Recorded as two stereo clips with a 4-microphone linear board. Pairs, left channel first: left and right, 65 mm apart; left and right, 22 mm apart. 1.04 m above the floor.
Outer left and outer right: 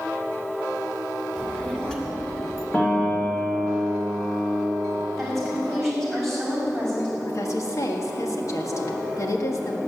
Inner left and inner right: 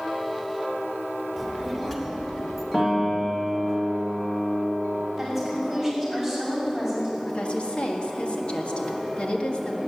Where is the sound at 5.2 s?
5° left (ahead or behind), 6 m.